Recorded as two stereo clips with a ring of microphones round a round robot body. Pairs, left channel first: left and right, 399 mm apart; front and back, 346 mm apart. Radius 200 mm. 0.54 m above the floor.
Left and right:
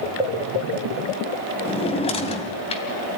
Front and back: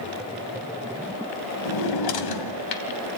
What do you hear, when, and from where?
1.6 s a drawer: 15° left, 2.5 m